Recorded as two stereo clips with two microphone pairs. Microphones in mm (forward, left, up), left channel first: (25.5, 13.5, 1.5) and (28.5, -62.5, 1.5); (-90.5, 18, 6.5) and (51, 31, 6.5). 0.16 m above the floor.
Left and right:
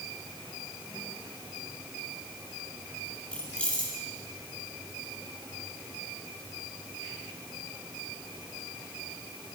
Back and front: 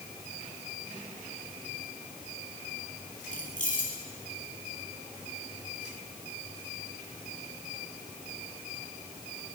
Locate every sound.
3.3 s keys jangling: 165° left, 3.5 m